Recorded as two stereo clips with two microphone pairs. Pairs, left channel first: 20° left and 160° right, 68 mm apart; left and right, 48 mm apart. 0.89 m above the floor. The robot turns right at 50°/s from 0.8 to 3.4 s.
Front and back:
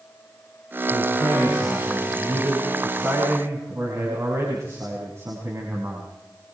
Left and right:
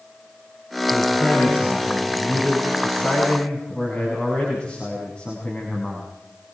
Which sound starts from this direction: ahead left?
A man speaking, at 0.9 s.